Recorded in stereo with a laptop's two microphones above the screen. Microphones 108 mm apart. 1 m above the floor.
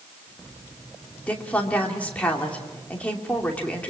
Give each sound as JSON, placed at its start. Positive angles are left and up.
{"t": 1.3, "sound": "a woman speaking", "side_deg": 15, "distance_m": 2.5}